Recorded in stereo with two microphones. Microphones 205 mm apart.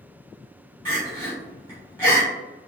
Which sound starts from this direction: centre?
Crying, at 0.8 s.